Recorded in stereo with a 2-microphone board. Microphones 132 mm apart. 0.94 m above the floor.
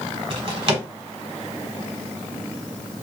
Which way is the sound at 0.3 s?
50° right (ahead or behind).